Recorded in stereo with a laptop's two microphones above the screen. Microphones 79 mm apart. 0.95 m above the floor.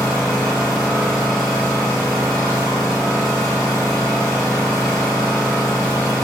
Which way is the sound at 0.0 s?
Centre (ahead or behind).